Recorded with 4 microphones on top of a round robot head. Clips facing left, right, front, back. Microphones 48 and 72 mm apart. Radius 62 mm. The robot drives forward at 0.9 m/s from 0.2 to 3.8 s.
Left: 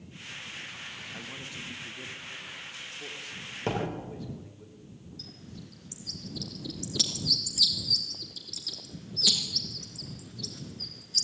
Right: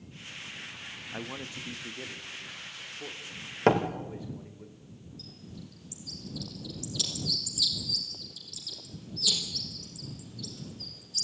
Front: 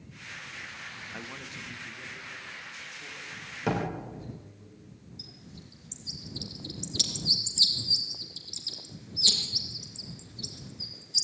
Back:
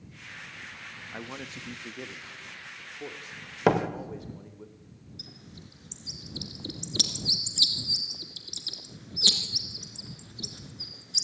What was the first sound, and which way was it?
A man speaking, 115° right.